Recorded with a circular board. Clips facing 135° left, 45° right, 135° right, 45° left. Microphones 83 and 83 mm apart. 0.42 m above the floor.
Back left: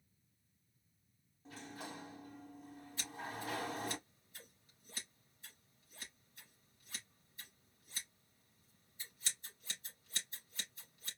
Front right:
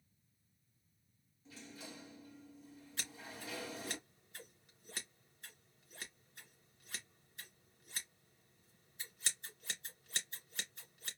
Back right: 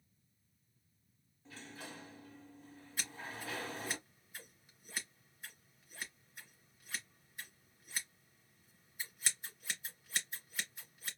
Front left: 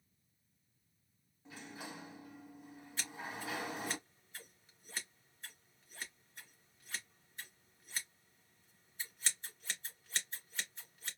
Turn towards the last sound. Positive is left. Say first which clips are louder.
# back left 5 dB, front left 1 dB
turn(degrees=-50)